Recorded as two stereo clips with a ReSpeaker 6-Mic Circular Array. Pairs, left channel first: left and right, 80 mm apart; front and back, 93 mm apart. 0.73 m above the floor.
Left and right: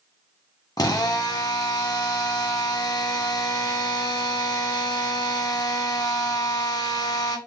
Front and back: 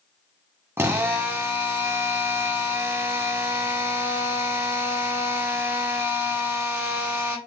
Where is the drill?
120° left, 0.9 m.